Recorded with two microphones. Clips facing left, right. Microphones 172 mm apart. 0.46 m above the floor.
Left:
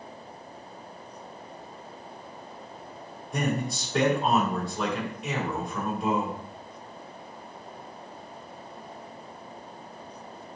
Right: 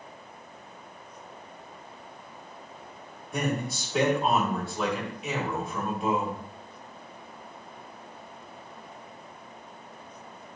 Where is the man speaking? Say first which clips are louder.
Left 1 dB; centre (ahead or behind), 2.5 m.